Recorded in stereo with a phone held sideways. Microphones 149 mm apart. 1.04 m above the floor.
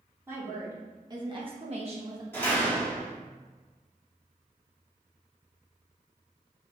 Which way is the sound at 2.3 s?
15° left (ahead or behind).